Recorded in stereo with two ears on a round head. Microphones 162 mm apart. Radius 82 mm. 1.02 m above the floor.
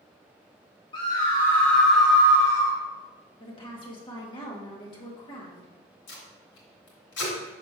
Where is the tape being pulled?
70° left (ahead or behind), 3 m.